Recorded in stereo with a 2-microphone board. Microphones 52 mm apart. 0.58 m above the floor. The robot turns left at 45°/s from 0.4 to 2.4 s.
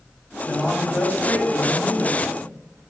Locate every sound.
0.5 s a man speaking: 150° left, 0.7 m; by 2.6 s 65° left, 0.7 m